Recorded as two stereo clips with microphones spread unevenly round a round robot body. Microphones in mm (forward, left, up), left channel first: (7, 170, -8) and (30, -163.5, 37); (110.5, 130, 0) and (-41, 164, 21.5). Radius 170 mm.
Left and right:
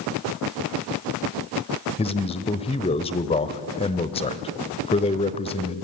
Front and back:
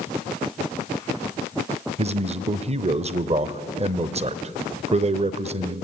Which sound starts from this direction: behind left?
A man speaking, at 2.0 s.